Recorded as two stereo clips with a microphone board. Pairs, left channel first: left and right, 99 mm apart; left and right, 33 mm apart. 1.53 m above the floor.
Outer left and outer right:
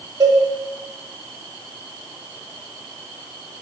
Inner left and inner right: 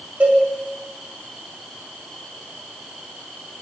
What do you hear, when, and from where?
0.2 s a cowbell: 50° right (ahead or behind), 3.5 m